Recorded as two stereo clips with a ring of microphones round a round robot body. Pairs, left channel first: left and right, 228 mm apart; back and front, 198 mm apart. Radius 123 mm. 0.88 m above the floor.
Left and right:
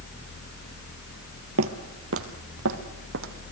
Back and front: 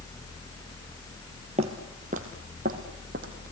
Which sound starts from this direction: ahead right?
Footsteps, at 1.6 s.